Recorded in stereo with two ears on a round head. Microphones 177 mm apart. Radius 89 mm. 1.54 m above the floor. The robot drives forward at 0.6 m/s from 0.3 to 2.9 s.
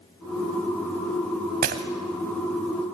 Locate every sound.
1.6 s breaking glass: 50° right (ahead or behind), 1.9 m